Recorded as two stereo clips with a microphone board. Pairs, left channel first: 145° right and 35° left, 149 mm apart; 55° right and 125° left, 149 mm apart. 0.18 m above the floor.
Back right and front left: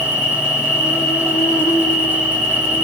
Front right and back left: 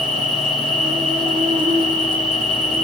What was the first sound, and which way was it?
An insect, 150° left.